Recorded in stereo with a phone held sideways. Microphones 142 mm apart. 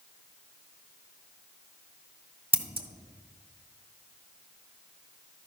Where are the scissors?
45° right (ahead or behind), 0.8 m.